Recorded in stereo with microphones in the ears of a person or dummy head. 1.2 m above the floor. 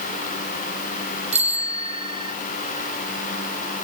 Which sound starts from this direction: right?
A bicycle bell, at 1.3 s.